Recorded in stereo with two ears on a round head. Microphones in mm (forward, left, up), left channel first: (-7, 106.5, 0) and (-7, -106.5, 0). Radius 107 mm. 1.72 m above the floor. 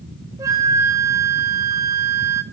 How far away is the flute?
About 0.5 m.